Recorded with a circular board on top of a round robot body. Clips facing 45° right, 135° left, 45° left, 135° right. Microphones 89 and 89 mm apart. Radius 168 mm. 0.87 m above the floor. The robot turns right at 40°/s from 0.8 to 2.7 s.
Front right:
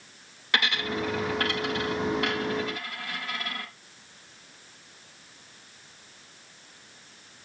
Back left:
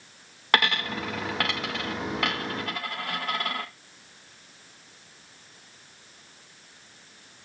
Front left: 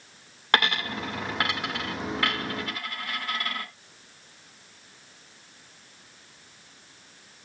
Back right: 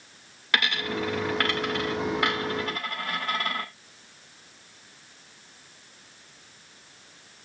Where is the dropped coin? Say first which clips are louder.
Back left 3 dB, front left 2 dB; 95° left, 0.6 m; by 3.6 s 170° left, 0.6 m.